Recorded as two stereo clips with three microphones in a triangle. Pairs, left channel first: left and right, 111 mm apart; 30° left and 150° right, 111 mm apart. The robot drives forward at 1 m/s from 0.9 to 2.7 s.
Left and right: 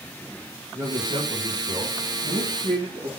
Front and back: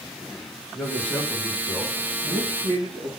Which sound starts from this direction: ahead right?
A man speaking, at 0.7 s.